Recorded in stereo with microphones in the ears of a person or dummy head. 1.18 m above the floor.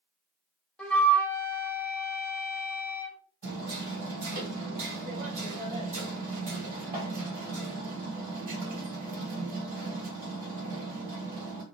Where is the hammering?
50° right (ahead or behind), 1.9 m.